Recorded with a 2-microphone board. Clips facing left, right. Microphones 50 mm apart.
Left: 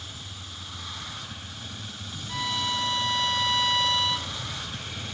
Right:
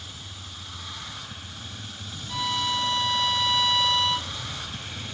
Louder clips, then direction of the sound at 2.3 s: Right 2 dB; 20° left (ahead or behind).